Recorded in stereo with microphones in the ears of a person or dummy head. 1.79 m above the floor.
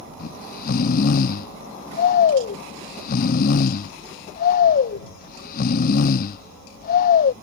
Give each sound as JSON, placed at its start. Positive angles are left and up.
{"t": 0.2, "sound": "snoring", "side_deg": 45}